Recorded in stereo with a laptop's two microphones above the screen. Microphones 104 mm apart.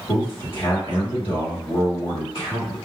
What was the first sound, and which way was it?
A man speaking, 60° left (ahead or behind).